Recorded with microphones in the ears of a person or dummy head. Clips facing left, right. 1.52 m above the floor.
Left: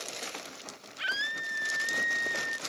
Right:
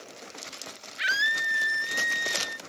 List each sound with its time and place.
1.0 s a scream: 20° right (ahead or behind); by 2.6 s 45° right (ahead or behind)